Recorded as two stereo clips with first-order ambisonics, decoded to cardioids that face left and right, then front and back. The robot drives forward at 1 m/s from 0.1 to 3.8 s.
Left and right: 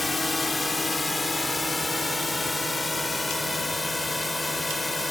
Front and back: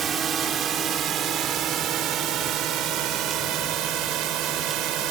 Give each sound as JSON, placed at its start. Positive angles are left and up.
{"t": 0.0, "sound": "a drone", "azimuth_deg": 165}